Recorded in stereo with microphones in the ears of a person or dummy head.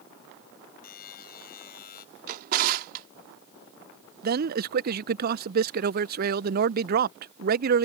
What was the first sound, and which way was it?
A buzzer, 60° left (ahead or behind).